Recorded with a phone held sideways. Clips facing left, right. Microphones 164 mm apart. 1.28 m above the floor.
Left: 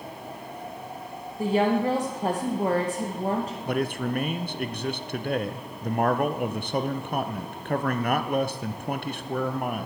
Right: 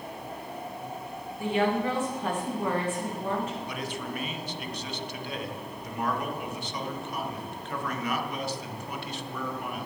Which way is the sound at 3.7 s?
55° left (ahead or behind).